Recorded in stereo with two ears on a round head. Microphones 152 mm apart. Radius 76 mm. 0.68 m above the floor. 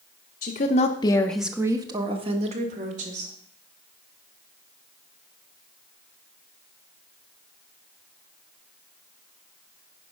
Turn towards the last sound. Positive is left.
turn(degrees=-45)  # may be behind; listen again after turning